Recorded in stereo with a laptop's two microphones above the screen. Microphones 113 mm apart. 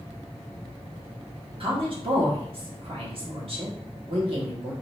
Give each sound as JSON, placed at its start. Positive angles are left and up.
{"t": 1.6, "sound": "a woman speaking", "side_deg": -55, "distance_m": 1.4}